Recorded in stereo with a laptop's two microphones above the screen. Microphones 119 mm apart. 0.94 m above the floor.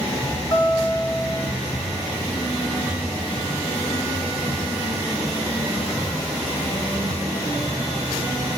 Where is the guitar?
35° left (ahead or behind), 4 m.